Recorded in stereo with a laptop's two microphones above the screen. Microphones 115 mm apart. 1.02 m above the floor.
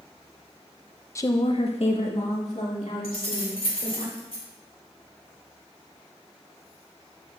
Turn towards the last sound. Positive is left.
turn(degrees=55)  # may be behind; listen again after turning